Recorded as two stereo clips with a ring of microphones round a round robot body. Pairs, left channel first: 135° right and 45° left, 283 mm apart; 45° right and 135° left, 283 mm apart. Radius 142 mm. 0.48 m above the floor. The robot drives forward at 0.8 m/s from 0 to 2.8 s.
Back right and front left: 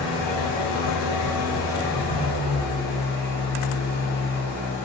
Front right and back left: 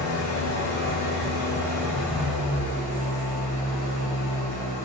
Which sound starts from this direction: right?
An engine running, at 0.0 s.